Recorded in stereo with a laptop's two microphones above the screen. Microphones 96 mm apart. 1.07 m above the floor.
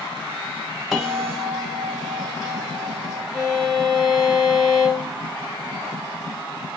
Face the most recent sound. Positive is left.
turn(degrees=5)  # may be behind; listen again after turning